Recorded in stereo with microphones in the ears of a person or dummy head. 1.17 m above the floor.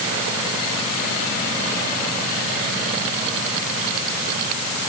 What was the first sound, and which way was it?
Only background noise.